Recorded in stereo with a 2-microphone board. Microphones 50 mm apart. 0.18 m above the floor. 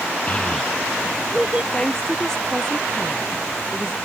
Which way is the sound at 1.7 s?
10° left (ahead or behind).